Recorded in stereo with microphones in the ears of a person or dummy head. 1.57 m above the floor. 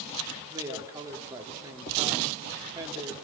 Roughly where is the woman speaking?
Centre.